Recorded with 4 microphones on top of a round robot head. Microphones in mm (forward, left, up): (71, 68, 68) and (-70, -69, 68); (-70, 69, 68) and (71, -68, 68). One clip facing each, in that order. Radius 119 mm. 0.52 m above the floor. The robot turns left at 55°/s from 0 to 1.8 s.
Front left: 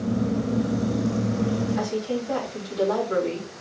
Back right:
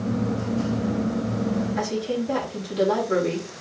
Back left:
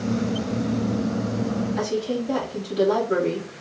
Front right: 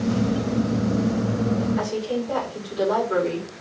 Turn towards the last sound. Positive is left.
turn(degrees=170)